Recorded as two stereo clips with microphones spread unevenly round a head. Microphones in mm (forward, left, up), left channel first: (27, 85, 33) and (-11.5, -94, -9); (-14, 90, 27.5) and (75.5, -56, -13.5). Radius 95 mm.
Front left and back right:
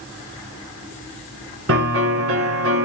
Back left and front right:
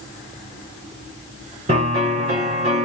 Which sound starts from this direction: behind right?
A piano, at 1.7 s.